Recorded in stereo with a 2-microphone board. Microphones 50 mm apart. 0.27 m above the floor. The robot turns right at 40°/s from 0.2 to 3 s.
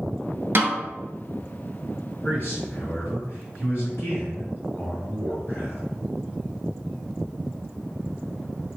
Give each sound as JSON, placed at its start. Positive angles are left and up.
{"t": 0.6, "sound": "a snare drum", "side_deg": -55, "distance_m": 0.6}
{"t": 2.2, "sound": "a man speaking", "azimuth_deg": 70, "distance_m": 1.4}